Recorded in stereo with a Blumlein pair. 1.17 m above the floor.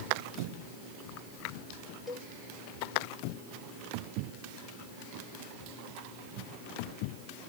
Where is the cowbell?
10° left, 1.3 m.